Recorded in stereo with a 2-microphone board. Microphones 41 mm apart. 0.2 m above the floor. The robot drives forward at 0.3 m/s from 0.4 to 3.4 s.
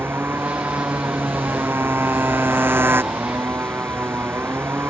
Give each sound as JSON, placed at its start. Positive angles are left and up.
{"t": 0.0, "sound": "a motorcycle", "side_deg": -75}